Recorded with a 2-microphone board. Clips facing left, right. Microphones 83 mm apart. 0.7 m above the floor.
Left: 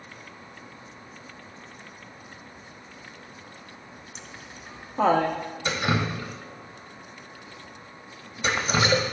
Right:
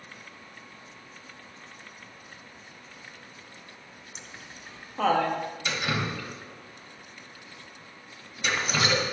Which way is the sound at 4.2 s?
5° right (ahead or behind).